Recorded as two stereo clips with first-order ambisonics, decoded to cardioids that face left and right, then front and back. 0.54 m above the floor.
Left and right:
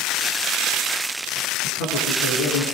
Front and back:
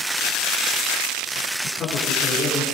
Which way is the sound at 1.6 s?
70° left.